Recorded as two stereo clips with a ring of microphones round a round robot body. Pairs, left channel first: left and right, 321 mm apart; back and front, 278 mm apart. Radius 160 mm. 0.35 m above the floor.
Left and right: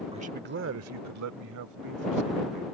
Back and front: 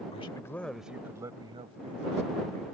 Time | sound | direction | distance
0.1 | a man speaking | 140° right | ?